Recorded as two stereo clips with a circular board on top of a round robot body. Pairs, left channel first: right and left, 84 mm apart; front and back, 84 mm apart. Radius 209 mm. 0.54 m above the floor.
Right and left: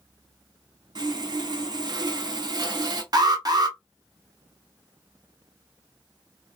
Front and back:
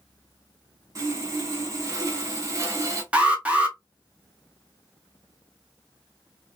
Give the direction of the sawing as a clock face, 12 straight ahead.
8 o'clock.